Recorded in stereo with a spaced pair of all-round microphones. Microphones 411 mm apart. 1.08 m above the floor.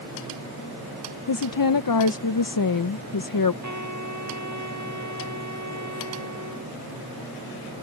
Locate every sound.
1.3 s a woman speaking: 55° left (ahead or behind)
3.6 s a trumpet: 45° right (ahead or behind)